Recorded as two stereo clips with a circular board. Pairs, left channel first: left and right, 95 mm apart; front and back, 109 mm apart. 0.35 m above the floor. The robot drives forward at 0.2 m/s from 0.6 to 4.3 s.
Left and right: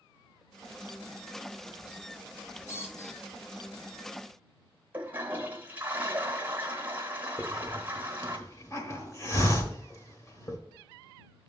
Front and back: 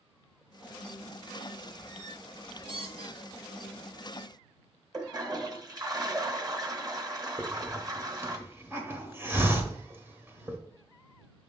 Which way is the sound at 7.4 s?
125° left.